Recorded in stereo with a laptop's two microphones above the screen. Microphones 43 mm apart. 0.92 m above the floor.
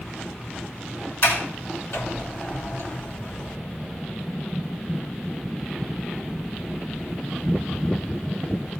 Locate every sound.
1.2 s a sliding door: 75° left (ahead or behind), 4 m